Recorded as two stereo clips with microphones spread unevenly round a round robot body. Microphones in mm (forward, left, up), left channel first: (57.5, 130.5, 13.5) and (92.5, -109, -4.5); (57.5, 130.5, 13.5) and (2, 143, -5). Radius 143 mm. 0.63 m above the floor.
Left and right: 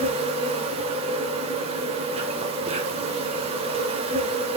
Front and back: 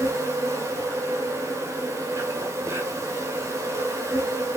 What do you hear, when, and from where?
0.0 s an insect: 150° right, 1.5 m